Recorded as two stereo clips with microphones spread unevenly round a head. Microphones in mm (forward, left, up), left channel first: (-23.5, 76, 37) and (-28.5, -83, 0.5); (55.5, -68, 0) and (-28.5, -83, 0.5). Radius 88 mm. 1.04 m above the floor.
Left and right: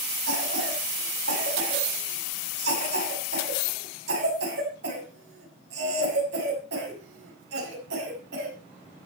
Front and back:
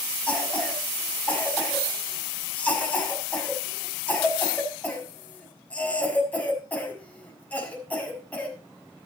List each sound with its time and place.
0.3 s a cough: 65° right, 6.5 m